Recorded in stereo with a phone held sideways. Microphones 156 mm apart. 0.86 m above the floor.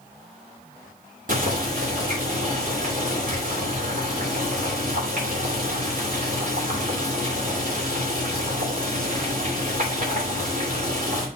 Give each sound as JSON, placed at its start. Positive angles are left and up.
{"t": 1.3, "sound": "boiling", "side_deg": -60, "distance_m": 3.0}